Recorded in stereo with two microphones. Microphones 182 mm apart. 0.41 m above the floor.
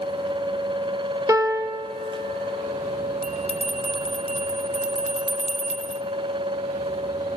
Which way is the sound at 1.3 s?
20° right (ahead or behind).